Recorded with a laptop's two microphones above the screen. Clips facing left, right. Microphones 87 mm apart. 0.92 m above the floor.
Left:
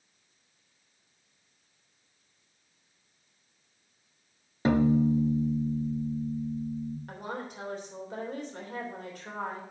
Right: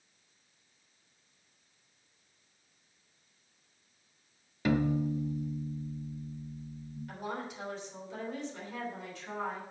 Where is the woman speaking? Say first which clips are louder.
Left 1 dB; 50° left (ahead or behind), 3 m.